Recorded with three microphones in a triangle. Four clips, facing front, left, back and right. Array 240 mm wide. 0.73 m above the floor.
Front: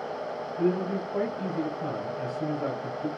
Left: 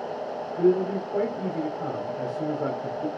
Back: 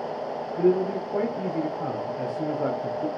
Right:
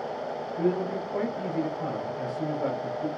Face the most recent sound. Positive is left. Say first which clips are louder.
# left 6 dB, back 5 dB
turn(degrees=160)